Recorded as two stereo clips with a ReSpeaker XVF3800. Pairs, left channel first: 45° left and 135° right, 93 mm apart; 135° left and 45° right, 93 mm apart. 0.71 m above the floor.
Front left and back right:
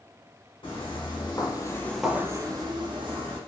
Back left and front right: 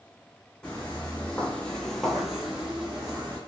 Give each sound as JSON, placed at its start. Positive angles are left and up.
{"t": 0.6, "sound": "footsteps", "azimuth_deg": 60, "distance_m": 1.9}